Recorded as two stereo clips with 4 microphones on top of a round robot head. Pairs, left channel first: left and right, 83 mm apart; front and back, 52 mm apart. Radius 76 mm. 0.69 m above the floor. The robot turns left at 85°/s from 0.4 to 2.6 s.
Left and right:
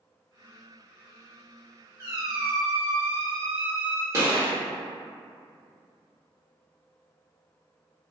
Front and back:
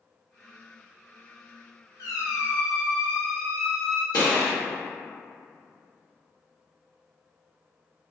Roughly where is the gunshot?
Ahead right.